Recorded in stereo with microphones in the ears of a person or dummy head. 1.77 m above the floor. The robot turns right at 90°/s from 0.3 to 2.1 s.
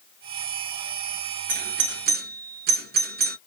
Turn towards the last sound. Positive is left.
turn(degrees=-50)  # may be behind; listen again after turning